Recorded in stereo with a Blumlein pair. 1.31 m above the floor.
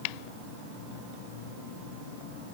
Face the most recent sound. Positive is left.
No sound to turn to.